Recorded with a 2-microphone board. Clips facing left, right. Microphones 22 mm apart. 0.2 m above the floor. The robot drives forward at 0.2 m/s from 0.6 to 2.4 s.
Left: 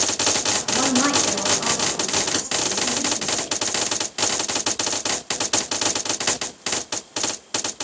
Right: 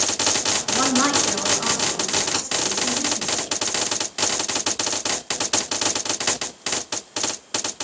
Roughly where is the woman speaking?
Right.